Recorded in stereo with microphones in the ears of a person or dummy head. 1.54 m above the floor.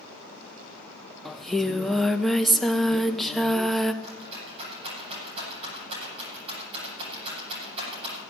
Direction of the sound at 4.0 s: 30° right (ahead or behind).